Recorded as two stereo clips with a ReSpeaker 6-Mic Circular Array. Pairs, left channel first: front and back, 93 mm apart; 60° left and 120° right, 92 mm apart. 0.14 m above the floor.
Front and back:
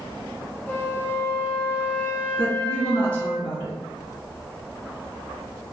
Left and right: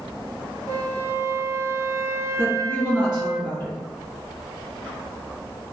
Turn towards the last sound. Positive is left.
turn(degrees=40)